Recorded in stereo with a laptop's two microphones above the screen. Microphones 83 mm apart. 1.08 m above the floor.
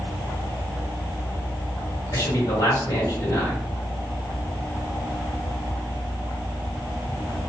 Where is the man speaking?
55° left (ahead or behind), 1.4 m.